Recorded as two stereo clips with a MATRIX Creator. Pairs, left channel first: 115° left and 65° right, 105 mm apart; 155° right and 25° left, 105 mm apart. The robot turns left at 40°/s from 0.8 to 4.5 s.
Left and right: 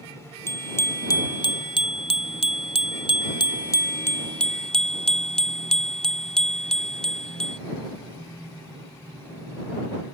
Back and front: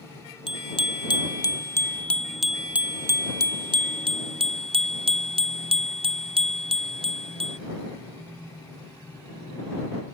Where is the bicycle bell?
175° left; by 7.6 s 30° left.